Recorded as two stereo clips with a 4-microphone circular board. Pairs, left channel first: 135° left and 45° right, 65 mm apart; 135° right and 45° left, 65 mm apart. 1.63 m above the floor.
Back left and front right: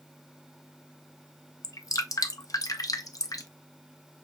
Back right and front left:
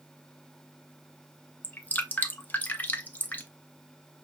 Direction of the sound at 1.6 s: 165° left.